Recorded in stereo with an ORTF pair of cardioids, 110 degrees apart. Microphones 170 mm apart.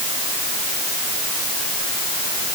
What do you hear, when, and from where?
Only background noise.